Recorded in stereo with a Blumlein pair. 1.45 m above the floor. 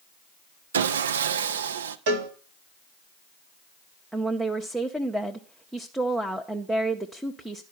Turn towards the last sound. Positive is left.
turn(degrees=-5)